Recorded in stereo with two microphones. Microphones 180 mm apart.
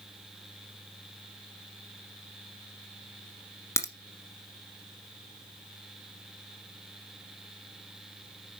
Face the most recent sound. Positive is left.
turn(degrees=15)  # may be behind; listen again after turning